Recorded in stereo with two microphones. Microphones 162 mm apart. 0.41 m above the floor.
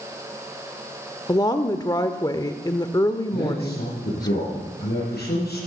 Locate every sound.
1.3 s a woman speaking: 25° left (ahead or behind), 0.9 m
3.3 s a man speaking: 80° left, 7 m